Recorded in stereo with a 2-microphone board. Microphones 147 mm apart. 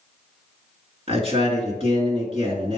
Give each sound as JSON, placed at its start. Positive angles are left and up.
{"t": 1.1, "sound": "a man speaking", "side_deg": -40, "distance_m": 1.9}